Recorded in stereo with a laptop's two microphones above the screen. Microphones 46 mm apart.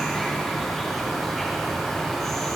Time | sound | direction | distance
0.0 | an insect | 5° left (ahead or behind) | 4 m